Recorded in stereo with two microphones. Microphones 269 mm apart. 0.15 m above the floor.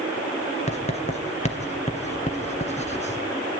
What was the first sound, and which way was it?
Writing, 25° left (ahead or behind).